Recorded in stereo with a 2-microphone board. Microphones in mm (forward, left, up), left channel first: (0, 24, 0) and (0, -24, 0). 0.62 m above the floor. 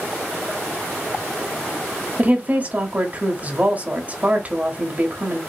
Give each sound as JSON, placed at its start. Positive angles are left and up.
{"t": 2.2, "sound": "a woman speaking", "side_deg": -30, "distance_m": 1.3}